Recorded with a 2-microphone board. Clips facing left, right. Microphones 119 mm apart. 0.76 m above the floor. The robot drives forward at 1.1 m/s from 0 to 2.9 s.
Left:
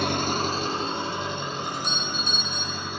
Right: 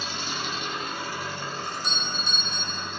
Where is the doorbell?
55° left (ahead or behind), 4.5 m; by 2.9 s 45° left (ahead or behind), 5.5 m.